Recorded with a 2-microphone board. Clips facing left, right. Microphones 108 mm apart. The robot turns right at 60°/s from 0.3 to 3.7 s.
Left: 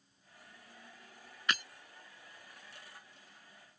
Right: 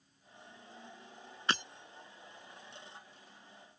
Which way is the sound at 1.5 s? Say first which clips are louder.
Right 1 dB; 35° right (ahead or behind).